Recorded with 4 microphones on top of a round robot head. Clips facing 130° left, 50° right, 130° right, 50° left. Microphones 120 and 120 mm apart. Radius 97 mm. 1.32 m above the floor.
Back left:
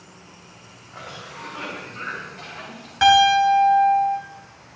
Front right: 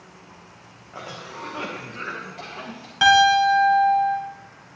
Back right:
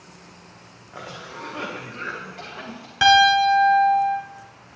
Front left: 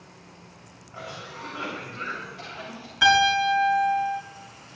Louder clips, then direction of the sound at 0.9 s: Front right 2 dB, back right 2 dB; 105° right.